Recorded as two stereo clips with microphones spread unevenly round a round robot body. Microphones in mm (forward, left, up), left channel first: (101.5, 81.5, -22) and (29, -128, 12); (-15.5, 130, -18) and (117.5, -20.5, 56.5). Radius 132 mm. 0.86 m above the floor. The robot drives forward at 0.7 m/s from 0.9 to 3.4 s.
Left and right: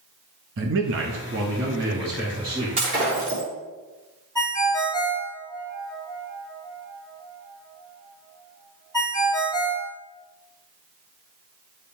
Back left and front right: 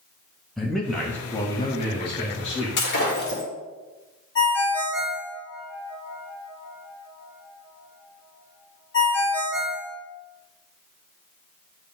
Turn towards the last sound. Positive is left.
turn(degrees=170)